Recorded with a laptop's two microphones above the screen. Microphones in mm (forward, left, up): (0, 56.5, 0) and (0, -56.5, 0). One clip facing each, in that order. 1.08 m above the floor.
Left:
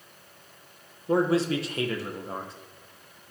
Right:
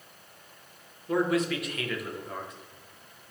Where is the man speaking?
30° left (ahead or behind), 0.9 m.